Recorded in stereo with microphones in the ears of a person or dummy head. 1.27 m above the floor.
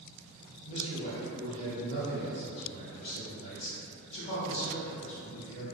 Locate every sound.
0.6 s a man speaking: 35° left (ahead or behind), 1.1 m